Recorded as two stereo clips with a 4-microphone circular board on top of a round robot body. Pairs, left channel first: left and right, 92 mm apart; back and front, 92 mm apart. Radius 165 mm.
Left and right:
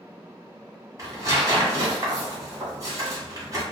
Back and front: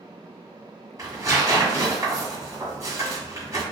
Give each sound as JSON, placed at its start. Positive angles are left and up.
{"t": 1.0, "sound": "tearing paper", "azimuth_deg": -45, "distance_m": 1.4}